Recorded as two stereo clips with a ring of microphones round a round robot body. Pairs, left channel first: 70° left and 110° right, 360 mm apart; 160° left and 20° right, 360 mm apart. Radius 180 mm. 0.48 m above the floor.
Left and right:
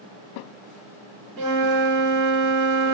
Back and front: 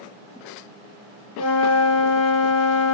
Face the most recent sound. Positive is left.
turn(degrees=-150)